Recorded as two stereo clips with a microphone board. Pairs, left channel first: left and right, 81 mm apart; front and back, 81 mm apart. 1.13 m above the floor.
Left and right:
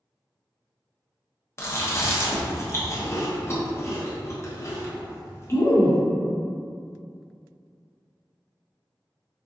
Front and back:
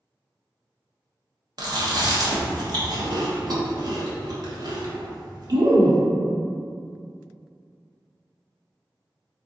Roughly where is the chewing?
Behind left.